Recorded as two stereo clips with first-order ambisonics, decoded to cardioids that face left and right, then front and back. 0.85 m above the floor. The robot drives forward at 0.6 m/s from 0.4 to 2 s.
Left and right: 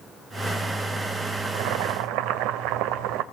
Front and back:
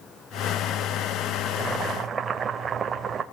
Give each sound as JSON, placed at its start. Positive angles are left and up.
{"t": 1.4, "sound": "boiling", "azimuth_deg": -100, "distance_m": 1.6}